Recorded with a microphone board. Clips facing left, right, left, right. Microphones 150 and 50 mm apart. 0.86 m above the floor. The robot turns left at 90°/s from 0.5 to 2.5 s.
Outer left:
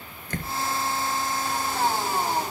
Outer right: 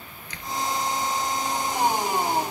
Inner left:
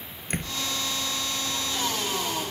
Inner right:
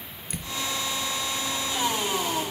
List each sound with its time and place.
0.3 s a door slam: 50° left (ahead or behind); by 0.6 s 40° left (ahead or behind)